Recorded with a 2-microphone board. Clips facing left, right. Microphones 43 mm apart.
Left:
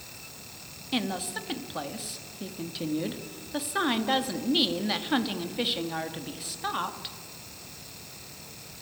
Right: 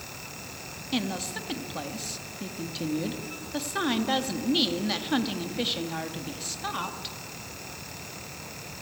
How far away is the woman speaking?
About 1.6 m.